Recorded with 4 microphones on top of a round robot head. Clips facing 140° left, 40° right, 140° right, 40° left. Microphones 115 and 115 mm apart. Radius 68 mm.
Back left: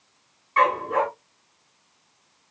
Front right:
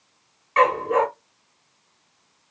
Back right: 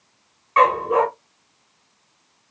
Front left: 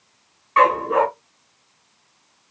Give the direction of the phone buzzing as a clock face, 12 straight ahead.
I don't hear a phone buzzing.